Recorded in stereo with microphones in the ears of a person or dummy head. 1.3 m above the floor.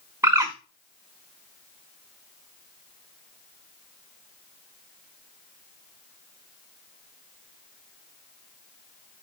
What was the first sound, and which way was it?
A bird, 10° right (ahead or behind).